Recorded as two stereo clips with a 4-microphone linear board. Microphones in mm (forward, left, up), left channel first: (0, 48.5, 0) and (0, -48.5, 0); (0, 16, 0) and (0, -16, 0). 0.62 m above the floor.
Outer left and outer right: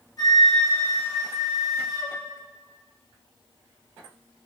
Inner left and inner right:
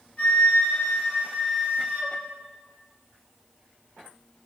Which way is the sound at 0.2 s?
45° left (ahead or behind).